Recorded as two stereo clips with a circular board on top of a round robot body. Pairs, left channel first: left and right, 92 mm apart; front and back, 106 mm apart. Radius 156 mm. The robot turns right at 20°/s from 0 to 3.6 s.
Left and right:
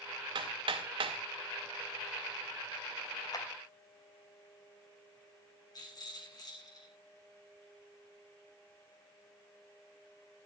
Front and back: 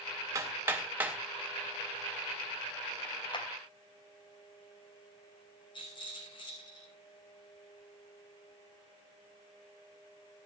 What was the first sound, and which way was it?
Hammering, 120° right.